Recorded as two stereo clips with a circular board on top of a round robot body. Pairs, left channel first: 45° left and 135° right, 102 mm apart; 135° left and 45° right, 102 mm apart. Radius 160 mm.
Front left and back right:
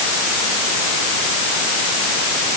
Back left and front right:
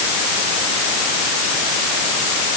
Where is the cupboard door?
I don't hear a cupboard door.